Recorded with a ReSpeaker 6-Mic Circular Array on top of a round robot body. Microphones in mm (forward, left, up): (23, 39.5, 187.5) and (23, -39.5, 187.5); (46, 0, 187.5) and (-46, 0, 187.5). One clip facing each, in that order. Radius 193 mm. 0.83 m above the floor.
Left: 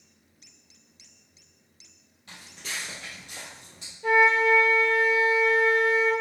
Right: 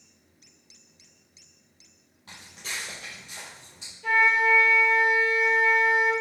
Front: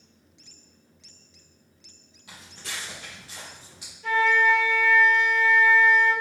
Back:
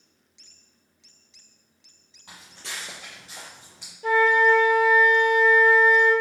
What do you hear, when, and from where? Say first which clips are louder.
2.3 s footsteps: even, even; 140° right, 1.1 m; by 3.9 s 75° left, 1.0 m
4.0 s a flute: left 2 dB, back 3 dB; 145° left, 1.1 m